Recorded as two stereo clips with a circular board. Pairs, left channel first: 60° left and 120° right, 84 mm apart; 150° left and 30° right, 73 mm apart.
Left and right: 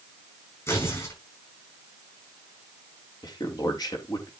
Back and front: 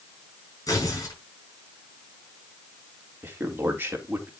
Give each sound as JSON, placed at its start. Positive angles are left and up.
{"t": 0.7, "sound": "tearing paper", "azimuth_deg": 115, "distance_m": 8.0}
{"t": 3.2, "sound": "a man speaking", "azimuth_deg": 30, "distance_m": 3.5}